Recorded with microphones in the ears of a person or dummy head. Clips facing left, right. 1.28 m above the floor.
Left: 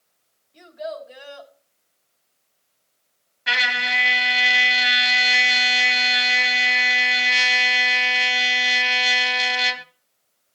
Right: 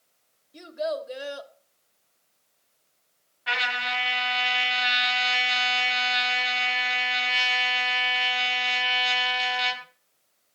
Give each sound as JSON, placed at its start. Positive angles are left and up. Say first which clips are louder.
{"t": 0.5, "sound": "a child speaking", "louder": "right 3 dB", "side_deg": -70, "distance_m": 1.9}
{"t": 3.5, "sound": "a trumpet", "louder": "left 2 dB", "side_deg": 35, "distance_m": 1.1}